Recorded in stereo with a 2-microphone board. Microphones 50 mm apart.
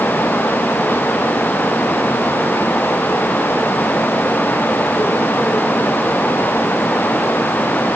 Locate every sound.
Only background noise.